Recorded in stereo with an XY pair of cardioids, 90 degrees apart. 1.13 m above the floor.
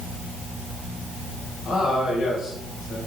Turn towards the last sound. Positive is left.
turn(degrees=65)